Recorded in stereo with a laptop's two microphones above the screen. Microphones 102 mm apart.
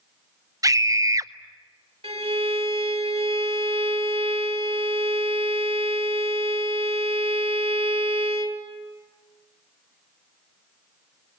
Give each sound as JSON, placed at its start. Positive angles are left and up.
{"t": 0.6, "sound": "a scream", "side_deg": -35, "distance_m": 0.6}
{"t": 2.0, "sound": "a violin", "side_deg": -70, "distance_m": 2.0}